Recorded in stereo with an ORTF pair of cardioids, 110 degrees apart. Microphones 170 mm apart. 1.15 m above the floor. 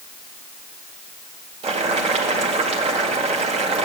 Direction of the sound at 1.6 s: 40° right.